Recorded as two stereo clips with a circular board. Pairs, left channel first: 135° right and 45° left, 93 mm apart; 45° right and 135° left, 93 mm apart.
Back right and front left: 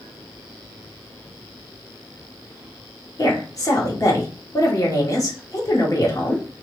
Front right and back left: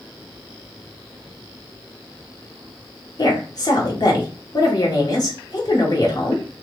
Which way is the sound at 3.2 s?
85° right.